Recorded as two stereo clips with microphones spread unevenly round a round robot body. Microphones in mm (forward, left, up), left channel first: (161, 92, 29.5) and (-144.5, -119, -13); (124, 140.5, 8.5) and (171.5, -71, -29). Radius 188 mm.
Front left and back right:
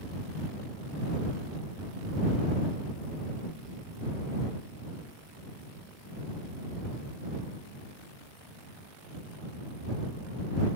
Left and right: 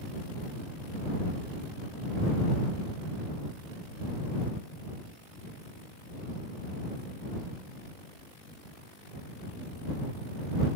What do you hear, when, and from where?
Only background noise.